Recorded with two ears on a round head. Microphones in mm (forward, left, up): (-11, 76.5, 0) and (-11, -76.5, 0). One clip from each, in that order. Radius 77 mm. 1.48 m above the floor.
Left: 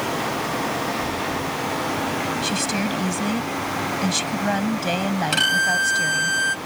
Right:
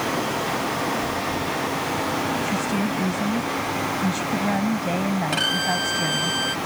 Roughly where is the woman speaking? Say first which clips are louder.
Left 1 dB; left.